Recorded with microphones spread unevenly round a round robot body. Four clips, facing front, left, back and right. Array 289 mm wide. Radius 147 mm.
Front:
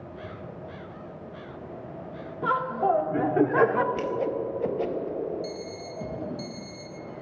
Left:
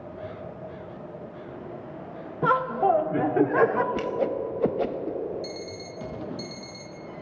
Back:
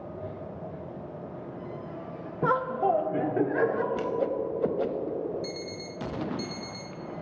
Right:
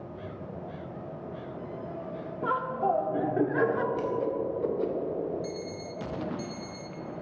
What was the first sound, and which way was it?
Laughter, 115° left.